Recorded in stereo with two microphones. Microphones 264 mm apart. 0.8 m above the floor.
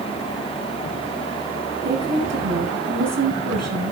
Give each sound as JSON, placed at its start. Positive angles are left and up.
{"t": 1.8, "sound": "a woman speaking", "side_deg": -75, "distance_m": 8.5}